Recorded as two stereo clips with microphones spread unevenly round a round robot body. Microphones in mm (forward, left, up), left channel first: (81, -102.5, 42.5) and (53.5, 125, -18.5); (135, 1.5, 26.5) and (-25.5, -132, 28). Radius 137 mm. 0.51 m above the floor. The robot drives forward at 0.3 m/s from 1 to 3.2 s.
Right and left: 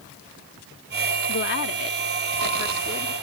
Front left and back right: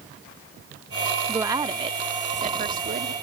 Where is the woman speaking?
75° right; by 3.1 s 145° right.